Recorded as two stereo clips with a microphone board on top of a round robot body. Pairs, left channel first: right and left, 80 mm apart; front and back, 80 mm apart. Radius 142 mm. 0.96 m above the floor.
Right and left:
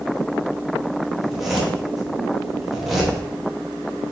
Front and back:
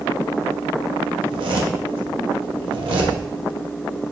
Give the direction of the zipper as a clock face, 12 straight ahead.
6 o'clock.